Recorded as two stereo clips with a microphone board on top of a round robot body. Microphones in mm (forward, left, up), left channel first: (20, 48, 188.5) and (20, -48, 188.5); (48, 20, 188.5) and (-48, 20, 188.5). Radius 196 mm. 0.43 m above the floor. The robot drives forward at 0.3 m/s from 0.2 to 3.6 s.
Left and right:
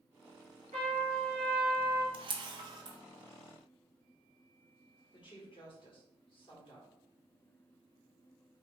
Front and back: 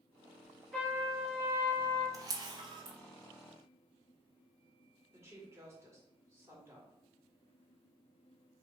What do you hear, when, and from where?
0.7 s a trumpet: 90° right, 2.0 m; by 2.0 s 100° right, 2 m
2.1 s a camera shutter: 120° right, 0.7 m; by 3.0 s 140° right, 0.8 m
5.1 s a woman speaking: 120° left, 1.8 m